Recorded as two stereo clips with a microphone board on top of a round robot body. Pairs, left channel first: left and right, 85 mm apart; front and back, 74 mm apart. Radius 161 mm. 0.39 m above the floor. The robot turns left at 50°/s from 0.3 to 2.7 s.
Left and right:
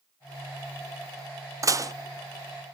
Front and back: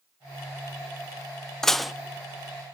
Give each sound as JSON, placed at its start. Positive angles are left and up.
{"t": 1.6, "sound": "dishes clattering", "azimuth_deg": -80, "distance_m": 0.6}